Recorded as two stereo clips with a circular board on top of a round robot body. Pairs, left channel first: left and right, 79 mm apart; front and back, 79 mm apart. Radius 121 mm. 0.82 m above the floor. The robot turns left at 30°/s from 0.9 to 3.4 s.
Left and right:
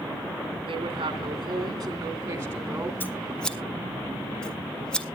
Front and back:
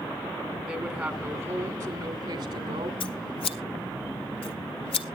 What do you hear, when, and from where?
0.7 s a woman speaking: 110° right, 2.5 m; by 2.9 s 170° right, 2.5 m
3.0 s scissors: 20° left, 0.5 m; by 5.1 s 10° left, 0.5 m